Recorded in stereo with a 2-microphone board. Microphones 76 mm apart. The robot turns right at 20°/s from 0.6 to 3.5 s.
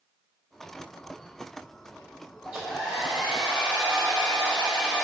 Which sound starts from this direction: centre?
A hair dryer, at 2.5 s.